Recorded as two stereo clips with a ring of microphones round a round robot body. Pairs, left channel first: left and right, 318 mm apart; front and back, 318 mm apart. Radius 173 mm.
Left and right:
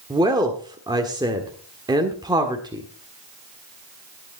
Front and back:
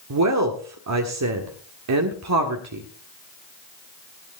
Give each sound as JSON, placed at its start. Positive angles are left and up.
{"t": 0.1, "sound": "a woman speaking", "azimuth_deg": -165, "distance_m": 1.6}